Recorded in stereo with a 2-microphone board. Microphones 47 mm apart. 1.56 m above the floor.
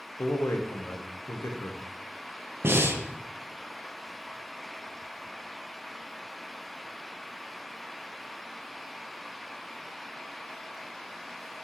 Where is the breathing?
60° right (ahead or behind), 0.7 m.